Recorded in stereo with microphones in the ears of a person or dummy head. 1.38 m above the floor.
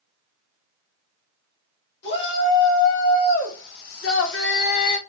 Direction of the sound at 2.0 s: 65° left (ahead or behind).